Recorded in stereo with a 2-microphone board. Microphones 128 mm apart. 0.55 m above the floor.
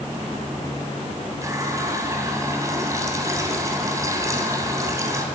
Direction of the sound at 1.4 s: 25° right (ahead or behind).